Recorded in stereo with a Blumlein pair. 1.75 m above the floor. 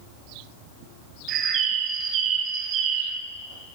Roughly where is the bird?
Ahead right.